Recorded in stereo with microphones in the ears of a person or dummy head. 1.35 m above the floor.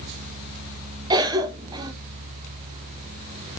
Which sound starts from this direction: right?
A cough, at 1.1 s.